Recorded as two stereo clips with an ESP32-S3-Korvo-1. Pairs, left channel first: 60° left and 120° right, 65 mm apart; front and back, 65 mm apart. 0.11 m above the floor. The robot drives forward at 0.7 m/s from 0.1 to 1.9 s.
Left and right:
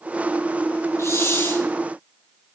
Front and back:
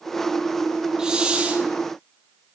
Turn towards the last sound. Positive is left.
turn(degrees=120)